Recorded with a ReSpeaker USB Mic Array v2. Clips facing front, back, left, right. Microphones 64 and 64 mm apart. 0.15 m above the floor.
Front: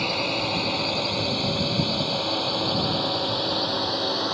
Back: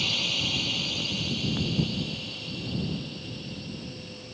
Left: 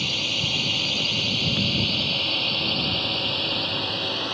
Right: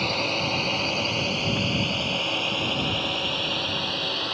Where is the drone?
40° right; by 4.3 s straight ahead.